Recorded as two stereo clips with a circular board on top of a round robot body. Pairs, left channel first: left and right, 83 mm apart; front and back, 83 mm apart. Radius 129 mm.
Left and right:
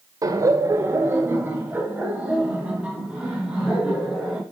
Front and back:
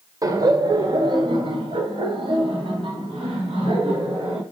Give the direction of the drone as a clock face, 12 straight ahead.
I don't hear a drone.